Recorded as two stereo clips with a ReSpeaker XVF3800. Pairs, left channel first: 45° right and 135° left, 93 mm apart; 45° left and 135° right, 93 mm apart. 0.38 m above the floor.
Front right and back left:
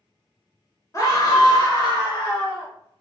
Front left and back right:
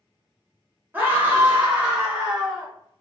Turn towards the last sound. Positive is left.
turn(degrees=-50)